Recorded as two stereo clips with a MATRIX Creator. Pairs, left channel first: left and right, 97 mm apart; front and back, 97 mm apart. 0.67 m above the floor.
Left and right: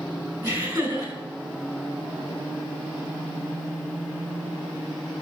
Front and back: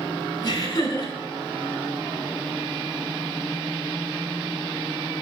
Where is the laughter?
45° right, 3.5 m.